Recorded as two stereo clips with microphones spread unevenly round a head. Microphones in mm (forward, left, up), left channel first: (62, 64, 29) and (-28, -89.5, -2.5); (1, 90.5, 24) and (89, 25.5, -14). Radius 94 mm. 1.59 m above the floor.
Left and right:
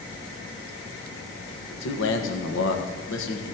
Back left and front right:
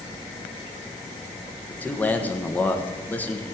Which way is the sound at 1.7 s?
75° left.